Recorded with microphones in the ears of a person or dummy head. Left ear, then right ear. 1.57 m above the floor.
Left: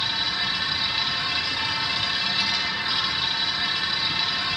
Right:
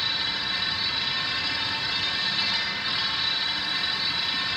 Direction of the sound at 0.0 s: 5° left (ahead or behind).